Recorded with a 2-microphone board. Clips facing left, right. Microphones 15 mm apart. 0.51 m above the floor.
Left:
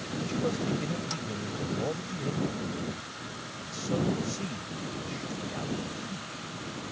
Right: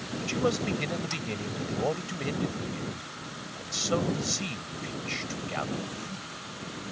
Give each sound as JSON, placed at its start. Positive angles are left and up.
{"t": 0.2, "sound": "a man speaking", "side_deg": -50}